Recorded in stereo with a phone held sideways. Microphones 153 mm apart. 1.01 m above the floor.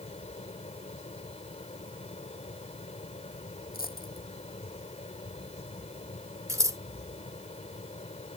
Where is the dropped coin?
75° left (ahead or behind).